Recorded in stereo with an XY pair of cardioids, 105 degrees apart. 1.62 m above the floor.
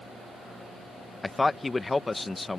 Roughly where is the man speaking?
Ahead.